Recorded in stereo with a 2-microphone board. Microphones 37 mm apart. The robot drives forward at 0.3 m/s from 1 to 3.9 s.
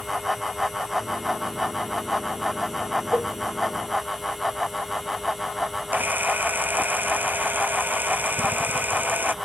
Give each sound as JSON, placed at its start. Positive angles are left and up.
{"t": 3.1, "sound": "a cowbell", "side_deg": -40}
{"t": 5.9, "sound": "a camera shutter", "side_deg": -60}